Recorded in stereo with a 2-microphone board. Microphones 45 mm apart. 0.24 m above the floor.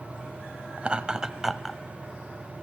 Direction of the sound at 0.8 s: 25° right (ahead or behind).